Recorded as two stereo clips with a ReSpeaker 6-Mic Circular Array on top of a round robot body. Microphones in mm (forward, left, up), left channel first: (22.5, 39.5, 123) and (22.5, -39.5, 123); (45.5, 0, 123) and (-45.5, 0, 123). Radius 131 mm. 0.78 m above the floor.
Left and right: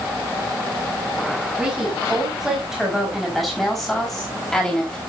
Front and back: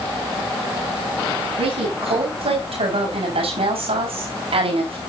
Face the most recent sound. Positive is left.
turn(degrees=170)